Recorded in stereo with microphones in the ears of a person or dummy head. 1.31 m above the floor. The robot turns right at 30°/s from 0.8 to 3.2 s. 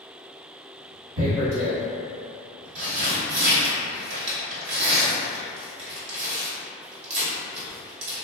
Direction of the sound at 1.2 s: 55° right (ahead or behind).